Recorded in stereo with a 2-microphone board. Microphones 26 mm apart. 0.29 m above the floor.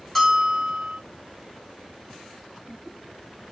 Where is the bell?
15° left (ahead or behind), 1.7 m.